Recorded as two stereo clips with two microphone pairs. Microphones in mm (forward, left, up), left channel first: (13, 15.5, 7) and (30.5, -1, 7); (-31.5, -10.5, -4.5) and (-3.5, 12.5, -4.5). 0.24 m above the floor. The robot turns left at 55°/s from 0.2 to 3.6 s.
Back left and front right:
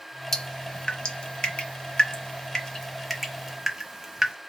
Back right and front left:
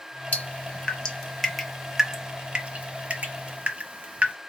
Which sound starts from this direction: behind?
Dripping, at 0.3 s.